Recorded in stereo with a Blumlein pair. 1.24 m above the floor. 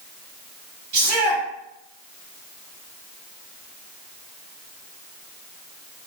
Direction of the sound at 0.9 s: 45° right.